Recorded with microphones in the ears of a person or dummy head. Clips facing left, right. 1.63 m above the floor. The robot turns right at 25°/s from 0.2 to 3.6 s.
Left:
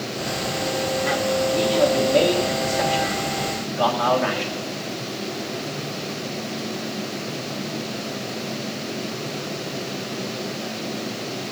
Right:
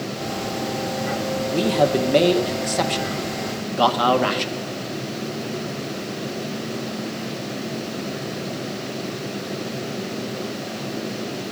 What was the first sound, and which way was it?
A man speaking, 115° right.